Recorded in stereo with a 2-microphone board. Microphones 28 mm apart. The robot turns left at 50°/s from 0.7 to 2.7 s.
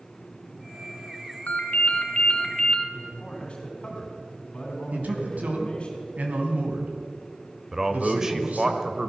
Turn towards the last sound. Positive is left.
turn(degrees=-20)  # may be behind; listen again after turning